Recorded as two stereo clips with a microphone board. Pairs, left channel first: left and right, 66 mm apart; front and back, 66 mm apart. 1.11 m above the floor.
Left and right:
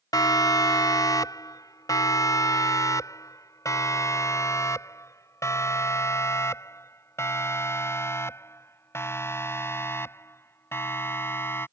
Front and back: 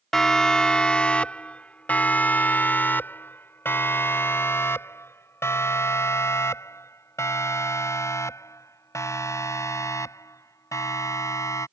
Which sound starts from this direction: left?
A siren, at 0.1 s.